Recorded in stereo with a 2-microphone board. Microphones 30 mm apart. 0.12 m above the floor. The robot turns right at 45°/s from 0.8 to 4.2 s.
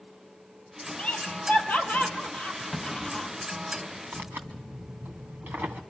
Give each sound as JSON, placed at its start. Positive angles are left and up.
{"t": 1.0, "sound": "laughter", "side_deg": 40, "distance_m": 2.5}
{"t": 2.7, "sound": "a clunk", "side_deg": 20, "distance_m": 10.0}
{"t": 4.1, "sound": "tearing paper", "side_deg": -70, "distance_m": 2.5}